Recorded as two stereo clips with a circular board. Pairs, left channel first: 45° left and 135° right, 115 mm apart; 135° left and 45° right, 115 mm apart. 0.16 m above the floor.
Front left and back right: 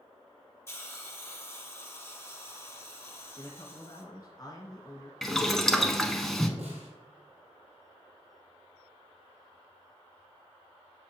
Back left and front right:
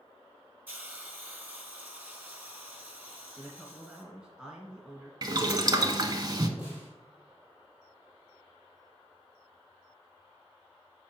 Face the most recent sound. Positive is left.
turn(degrees=-120)